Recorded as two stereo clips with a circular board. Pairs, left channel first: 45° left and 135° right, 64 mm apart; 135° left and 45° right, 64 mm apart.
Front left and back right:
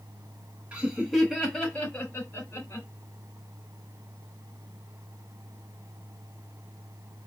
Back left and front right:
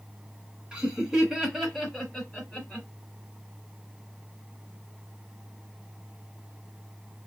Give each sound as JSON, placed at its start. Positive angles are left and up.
{"t": 0.7, "sound": "laughter", "azimuth_deg": -105, "distance_m": 1.0}